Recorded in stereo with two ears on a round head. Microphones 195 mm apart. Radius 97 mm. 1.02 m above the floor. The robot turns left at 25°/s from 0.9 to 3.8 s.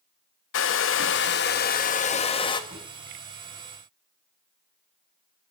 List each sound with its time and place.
0.5 s a hair dryer: 65° left, 0.7 m; by 2.6 s 20° left, 0.7 m
2.7 s a drawer: 30° right (ahead or behind), 6 m; by 2.9 s 25° right (ahead or behind), 6 m